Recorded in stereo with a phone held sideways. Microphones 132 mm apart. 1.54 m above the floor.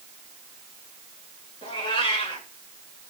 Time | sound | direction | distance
1.6 | a cat meowing | 45° left (ahead or behind) | 1.7 m